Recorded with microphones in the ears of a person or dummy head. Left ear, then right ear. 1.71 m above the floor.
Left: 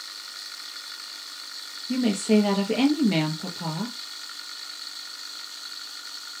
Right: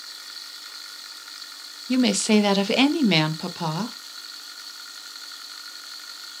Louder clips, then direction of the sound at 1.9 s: Right 3 dB; 45° right (ahead or behind).